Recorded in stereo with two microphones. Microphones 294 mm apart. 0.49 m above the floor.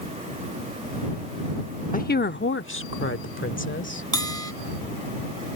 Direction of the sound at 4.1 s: 75° right (ahead or behind).